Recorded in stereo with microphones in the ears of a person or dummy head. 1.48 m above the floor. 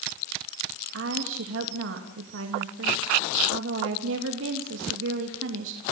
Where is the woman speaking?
80° right, 2.5 m.